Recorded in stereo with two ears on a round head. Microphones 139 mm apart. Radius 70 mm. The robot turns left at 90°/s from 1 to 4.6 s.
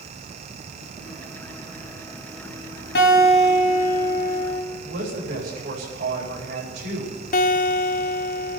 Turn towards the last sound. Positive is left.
turn(degrees=50)  # may be behind; listen again after turning